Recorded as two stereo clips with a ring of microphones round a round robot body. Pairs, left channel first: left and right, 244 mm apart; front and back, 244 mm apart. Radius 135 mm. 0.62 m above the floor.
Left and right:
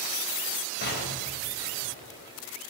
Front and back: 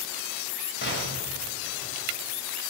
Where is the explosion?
45° left, 3.5 m.